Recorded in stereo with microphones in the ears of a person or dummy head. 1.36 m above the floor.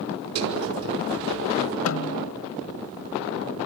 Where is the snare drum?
80° left, 1.8 m.